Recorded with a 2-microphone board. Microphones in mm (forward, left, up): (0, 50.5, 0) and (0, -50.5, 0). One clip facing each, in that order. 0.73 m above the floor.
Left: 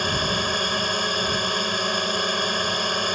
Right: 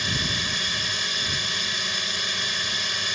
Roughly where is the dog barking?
I don't hear a dog barking.